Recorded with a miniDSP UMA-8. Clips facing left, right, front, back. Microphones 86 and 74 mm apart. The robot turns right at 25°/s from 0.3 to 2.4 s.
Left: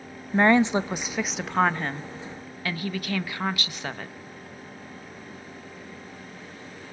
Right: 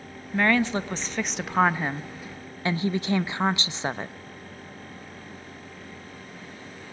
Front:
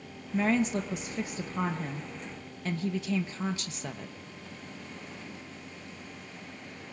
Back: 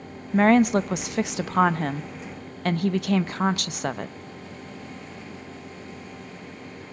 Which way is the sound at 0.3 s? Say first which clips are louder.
Left 4 dB, back 9 dB; 150° left.